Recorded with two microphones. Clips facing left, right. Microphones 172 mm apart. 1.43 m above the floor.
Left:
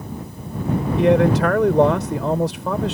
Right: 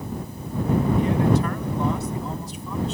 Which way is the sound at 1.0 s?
80° left.